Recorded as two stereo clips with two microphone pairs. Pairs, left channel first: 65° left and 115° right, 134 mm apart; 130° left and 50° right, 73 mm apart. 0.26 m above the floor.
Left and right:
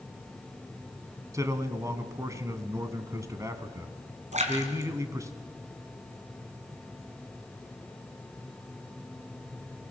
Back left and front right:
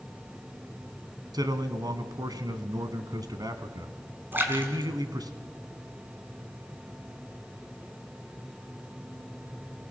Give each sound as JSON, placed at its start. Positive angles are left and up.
{"t": 1.3, "sound": "a man speaking", "azimuth_deg": -55, "distance_m": 1.7}
{"t": 4.3, "sound": "a splash", "azimuth_deg": -115, "distance_m": 3.0}